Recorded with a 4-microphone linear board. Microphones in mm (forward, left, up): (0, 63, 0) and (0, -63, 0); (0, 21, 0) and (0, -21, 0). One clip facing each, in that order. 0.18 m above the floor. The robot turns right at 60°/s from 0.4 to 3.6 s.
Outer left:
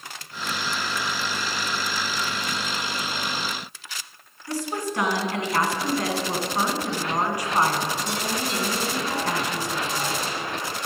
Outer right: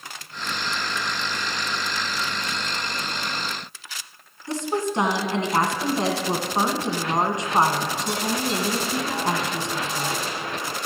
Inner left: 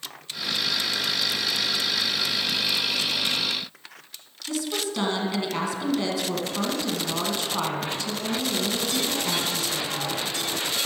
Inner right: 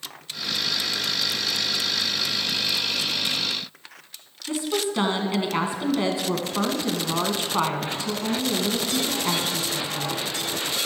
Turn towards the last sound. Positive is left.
turn(degrees=-25)  # may be behind; listen again after turning